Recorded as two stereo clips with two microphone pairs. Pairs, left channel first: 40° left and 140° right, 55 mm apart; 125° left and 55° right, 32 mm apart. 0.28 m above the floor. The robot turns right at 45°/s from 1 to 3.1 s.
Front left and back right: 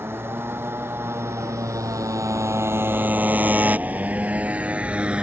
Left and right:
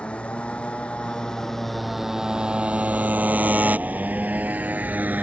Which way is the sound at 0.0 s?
175° left.